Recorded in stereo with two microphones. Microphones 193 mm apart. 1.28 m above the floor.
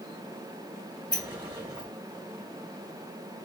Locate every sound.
1.1 s a sliding door: 25° right (ahead or behind), 1.1 m